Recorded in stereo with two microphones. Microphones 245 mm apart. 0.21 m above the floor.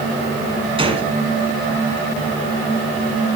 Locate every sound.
0.8 s a gunshot: 20° right (ahead or behind), 1.5 m